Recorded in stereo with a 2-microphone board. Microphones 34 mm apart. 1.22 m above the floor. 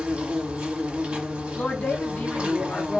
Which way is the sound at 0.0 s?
30° right (ahead or behind).